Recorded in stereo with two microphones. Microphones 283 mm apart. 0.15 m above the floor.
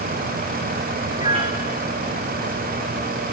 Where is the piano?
20° right (ahead or behind), 1.4 m.